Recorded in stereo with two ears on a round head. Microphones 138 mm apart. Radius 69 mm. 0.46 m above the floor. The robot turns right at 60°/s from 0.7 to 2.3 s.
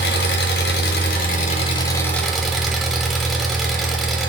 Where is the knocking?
I don't hear knocking.